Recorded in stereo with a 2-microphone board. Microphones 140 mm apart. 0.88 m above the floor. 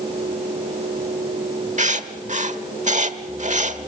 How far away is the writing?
About 1.1 m.